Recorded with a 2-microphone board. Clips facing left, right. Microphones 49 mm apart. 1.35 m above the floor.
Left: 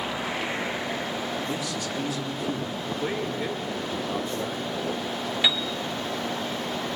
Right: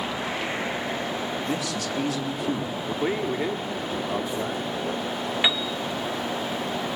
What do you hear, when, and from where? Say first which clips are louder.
1.4 s a man speaking: right 2 dB; 80° right, 2.5 m
2.9 s a man speaking: right 4 dB; 75° right (ahead or behind), 3 m
5.4 s a piano: even; 25° right (ahead or behind), 1.1 m